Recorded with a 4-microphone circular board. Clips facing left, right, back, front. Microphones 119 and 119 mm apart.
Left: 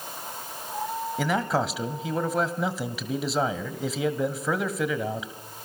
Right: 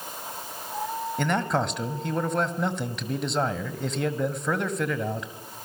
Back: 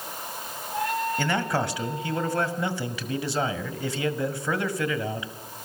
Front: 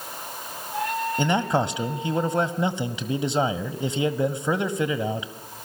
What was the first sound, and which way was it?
A man speaking, 10° left.